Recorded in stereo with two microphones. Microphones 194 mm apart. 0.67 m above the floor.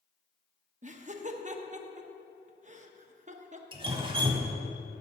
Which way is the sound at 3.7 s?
25° right (ahead or behind).